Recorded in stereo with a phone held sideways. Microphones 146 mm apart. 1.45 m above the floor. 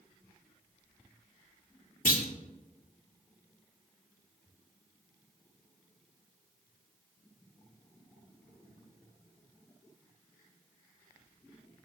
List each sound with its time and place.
2.0 s a clunk: 70° left (ahead or behind), 1.4 m